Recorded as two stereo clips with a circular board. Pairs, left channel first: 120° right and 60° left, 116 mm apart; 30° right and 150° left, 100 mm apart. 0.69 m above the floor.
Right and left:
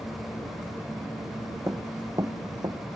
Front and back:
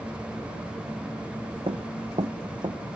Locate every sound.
1.7 s running footsteps: 125° left; by 2.8 s 110° left